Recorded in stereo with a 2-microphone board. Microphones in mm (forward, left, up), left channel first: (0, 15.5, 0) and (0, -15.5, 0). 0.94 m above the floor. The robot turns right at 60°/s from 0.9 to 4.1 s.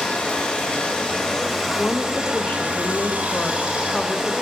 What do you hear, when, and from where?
0.0 s running water: 135° left, 1.0 m; by 4.4 s 35° right, 1.0 m
1.8 s a woman speaking: 25° left, 0.6 m; by 4.3 s 170° left, 0.6 m